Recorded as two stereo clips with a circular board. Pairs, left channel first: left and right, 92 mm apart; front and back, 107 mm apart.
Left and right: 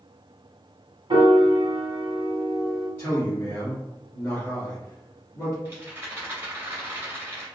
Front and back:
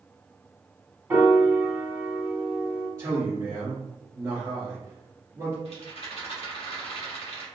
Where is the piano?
110° right, 1.0 m.